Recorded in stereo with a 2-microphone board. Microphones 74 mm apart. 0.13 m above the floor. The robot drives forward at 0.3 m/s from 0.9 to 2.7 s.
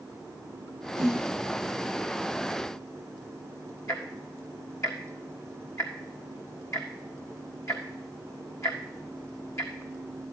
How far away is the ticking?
About 1.5 m.